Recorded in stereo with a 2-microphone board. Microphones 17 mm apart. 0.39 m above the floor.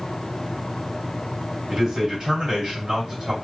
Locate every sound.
1.7 s a man speaking: 45° right (ahead or behind), 2 m